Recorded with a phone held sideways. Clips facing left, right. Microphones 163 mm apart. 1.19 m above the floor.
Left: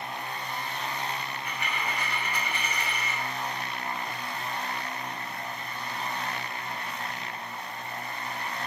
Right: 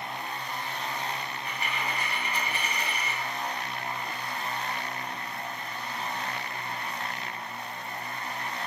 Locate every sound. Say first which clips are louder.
1.3 s a dropped coin: even; 30° right (ahead or behind), 0.9 m